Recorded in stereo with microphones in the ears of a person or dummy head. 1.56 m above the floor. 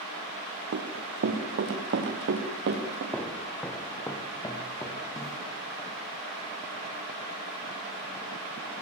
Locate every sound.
0.7 s running footsteps: 65° right (ahead or behind), 3.5 m; by 3.0 s 60° right (ahead or behind), 6.5 m
3.1 s footsteps: 5° left (ahead or behind), 3 m; by 5.4 s 20° left (ahead or behind), 4 m